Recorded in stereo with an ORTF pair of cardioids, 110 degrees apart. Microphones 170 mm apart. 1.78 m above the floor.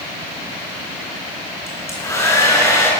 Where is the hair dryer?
15° left, 7.5 m.